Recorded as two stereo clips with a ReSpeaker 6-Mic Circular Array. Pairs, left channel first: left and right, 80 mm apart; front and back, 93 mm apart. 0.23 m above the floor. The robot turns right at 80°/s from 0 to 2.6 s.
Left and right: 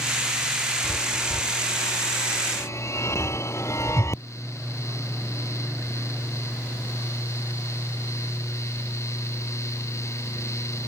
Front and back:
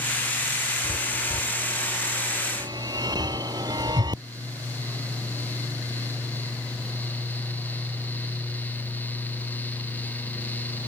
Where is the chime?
Straight ahead; by 4.2 s 140° left.